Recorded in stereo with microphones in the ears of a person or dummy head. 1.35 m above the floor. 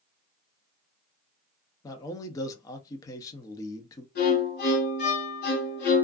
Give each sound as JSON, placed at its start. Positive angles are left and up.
{"t": 1.8, "sound": "a man speaking", "side_deg": 15, "distance_m": 0.5}
{"t": 4.2, "sound": "a violin", "side_deg": 55, "distance_m": 1.6}